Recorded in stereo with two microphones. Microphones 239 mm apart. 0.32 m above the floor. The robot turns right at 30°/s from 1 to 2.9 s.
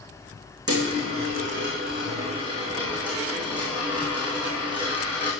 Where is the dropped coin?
60° right, 3.5 m; by 5.3 s 5° right, 3.5 m.